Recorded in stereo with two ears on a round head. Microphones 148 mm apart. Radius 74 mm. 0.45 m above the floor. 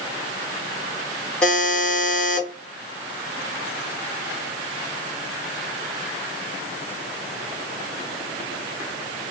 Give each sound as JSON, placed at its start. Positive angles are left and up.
{"t": 1.4, "sound": "a buzzer", "side_deg": 5, "distance_m": 1.2}